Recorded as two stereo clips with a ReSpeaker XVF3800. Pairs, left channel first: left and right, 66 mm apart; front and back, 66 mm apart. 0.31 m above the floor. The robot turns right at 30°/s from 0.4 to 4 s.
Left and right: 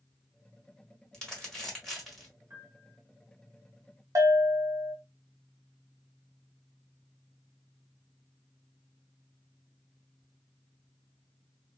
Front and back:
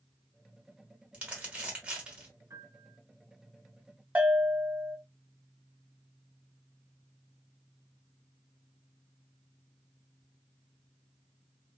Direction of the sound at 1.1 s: 145° left.